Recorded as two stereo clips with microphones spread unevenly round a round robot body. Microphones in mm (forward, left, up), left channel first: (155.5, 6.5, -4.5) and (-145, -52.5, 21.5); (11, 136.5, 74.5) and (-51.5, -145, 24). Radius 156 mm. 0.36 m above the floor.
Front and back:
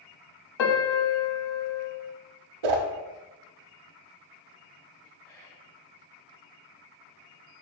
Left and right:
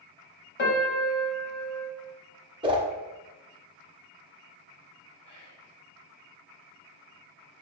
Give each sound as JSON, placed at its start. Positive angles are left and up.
{"t": 0.6, "sound": "a piano", "azimuth_deg": 15, "distance_m": 0.9}
{"t": 2.6, "sound": "a whoosh", "azimuth_deg": -175, "distance_m": 0.6}
{"t": 5.2, "sound": "whispering", "azimuth_deg": 90, "distance_m": 1.2}